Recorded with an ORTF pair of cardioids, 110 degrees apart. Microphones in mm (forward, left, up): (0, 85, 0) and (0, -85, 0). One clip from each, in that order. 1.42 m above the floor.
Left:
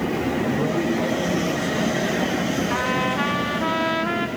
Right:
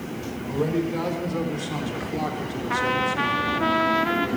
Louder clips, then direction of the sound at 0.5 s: Left 3 dB; 40° right.